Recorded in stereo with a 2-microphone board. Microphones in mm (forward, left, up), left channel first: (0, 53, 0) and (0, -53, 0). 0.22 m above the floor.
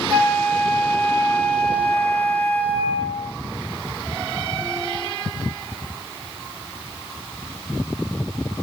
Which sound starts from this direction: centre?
A flute, at 0.1 s.